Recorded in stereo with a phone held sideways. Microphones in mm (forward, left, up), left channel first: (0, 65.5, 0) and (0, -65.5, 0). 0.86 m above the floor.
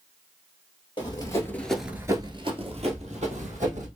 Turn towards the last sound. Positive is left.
turn(degrees=-65)  # may be behind; listen again after turning